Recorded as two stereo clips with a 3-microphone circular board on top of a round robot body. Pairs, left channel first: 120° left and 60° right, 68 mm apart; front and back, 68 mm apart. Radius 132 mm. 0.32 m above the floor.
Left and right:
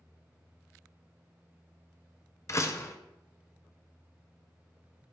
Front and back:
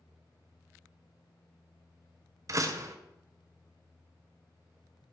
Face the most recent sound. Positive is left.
turn(degrees=155)